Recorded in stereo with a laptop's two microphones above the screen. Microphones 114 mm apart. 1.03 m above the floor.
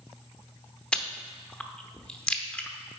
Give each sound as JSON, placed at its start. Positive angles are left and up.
{"t": 0.9, "sound": "chewing", "side_deg": 10, "distance_m": 0.7}